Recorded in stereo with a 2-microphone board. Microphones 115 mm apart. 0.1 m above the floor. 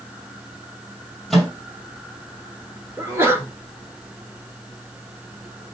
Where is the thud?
I don't hear a thud.